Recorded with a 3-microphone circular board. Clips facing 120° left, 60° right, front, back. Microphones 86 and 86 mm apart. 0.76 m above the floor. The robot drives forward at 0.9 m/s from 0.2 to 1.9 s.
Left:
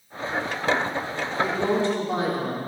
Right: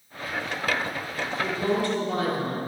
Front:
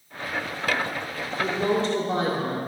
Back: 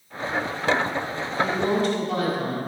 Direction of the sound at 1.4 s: 45° left.